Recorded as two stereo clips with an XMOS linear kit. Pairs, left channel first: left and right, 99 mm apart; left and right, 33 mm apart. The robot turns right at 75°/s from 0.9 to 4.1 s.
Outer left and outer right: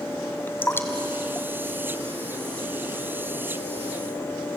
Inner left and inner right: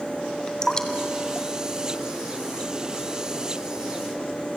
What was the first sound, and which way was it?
Dripping, 25° left (ahead or behind).